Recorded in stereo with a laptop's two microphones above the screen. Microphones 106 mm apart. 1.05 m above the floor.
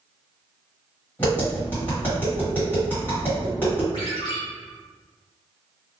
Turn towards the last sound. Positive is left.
turn(degrees=50)  # may be behind; listen again after turning